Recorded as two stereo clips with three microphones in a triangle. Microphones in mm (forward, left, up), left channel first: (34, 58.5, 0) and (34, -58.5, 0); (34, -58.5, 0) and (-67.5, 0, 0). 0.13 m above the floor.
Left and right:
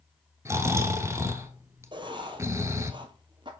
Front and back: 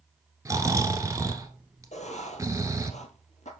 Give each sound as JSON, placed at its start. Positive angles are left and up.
{"t": 0.5, "sound": "snoring", "azimuth_deg": -150, "distance_m": 1.0}
{"t": 1.9, "sound": "writing", "azimuth_deg": -40, "distance_m": 1.2}